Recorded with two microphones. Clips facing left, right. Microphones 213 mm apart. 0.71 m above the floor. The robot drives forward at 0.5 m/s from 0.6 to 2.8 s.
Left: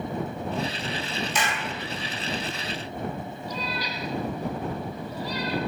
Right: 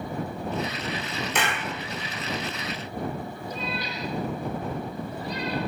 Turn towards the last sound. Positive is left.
turn(degrees=-55)  # may be behind; listen again after turning